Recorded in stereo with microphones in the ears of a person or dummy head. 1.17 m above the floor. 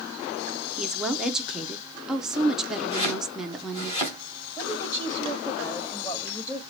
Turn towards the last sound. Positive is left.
turn(degrees=20)  # may be behind; listen again after turning